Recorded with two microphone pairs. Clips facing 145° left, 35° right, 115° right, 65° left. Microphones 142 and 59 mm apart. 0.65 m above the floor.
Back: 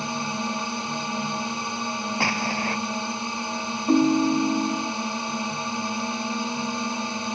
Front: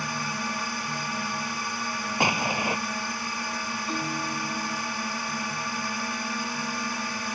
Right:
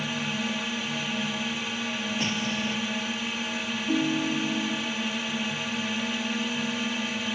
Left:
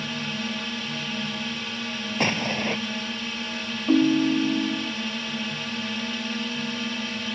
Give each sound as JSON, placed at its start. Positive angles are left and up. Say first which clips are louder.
{"t": 0.0, "sound": "a drone", "louder": "back 4 dB, right 1 dB", "azimuth_deg": 175}
{"t": 2.2, "sound": "an explosion", "louder": "front 2 dB, left 7 dB", "azimuth_deg": 40}
{"t": 3.9, "sound": "a ringtone", "louder": "back 15 dB, left 7 dB", "azimuth_deg": 105}